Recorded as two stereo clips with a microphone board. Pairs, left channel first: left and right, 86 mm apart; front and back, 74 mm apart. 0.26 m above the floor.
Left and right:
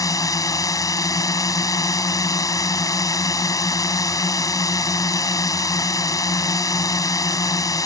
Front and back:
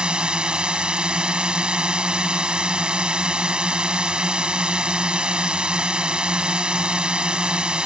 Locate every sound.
0.0 s a drone: 105° left